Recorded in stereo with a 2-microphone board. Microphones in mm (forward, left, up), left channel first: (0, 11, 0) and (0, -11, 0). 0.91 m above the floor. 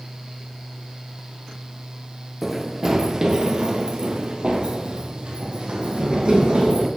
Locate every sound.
2.4 s running footsteps: 15° right (ahead or behind), 1.1 m; by 6.9 s 55° right (ahead or behind), 3 m